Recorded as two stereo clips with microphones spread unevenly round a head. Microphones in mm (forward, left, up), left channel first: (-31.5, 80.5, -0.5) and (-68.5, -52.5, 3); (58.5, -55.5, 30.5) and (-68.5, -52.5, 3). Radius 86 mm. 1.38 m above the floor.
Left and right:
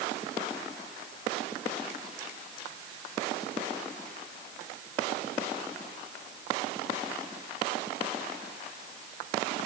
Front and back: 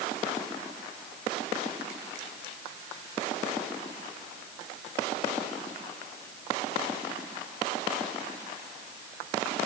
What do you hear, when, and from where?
Only background noise.